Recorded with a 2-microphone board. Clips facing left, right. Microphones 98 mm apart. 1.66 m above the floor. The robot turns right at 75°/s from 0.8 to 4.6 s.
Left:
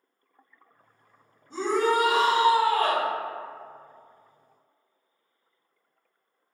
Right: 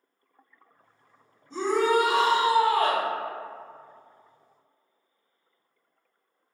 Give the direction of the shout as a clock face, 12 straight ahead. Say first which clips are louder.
Right 1 dB; 6 o'clock.